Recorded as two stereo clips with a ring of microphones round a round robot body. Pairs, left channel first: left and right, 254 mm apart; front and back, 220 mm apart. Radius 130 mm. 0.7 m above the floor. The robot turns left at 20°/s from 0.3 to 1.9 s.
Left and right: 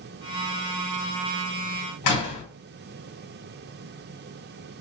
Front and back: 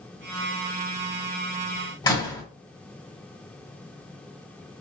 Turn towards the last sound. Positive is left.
turn(degrees=75)